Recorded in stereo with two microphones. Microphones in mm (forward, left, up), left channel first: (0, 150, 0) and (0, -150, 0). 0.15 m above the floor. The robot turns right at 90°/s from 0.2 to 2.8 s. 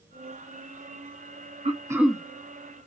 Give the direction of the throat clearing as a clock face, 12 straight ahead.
1 o'clock.